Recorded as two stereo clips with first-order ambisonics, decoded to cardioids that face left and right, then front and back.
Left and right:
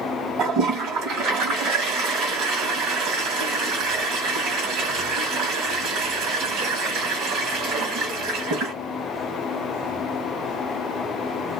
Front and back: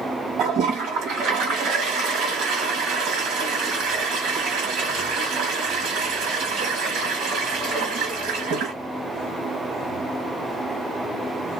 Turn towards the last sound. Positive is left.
turn(degrees=-135)